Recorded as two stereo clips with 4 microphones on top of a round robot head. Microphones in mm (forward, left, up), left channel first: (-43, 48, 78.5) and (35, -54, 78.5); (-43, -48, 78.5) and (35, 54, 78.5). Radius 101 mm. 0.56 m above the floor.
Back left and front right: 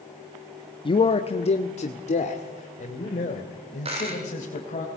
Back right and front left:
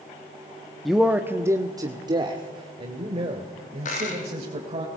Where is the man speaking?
145° left, 1.0 m; by 4.8 s 95° left, 4 m.